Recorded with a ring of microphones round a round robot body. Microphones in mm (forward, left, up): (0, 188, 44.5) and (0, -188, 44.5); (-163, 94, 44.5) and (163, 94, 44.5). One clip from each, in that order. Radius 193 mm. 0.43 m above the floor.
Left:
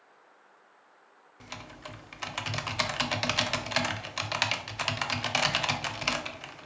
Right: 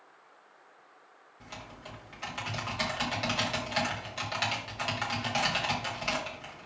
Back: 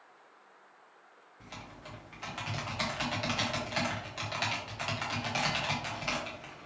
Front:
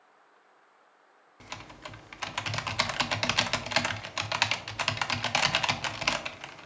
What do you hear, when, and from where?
1.4 s typing on a keyboard: 25° left, 0.8 m